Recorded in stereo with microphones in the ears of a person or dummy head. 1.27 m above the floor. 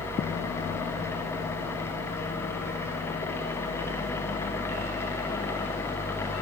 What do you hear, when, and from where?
0.0 s a fan: 15° left (ahead or behind), 0.7 m